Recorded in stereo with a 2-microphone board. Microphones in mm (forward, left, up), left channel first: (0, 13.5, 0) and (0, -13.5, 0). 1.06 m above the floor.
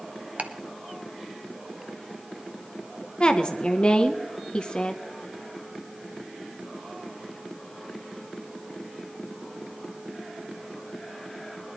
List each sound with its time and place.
0.4 s ticking: 65° right (ahead or behind), 1.0 m
3.2 s a woman speaking: 35° left (ahead or behind), 0.8 m